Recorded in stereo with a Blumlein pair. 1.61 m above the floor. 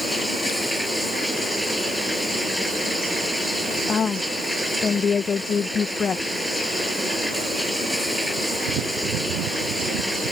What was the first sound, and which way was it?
Running water, straight ahead.